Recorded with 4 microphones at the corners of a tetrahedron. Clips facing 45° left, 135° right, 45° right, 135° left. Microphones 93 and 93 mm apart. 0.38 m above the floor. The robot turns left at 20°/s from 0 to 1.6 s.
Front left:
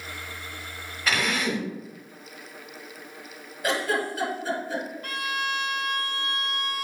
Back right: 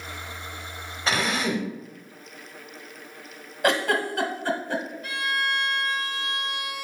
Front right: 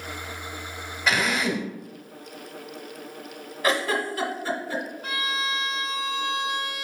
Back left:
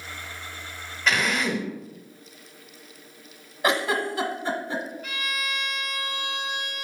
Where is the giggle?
160° right, 1.3 m.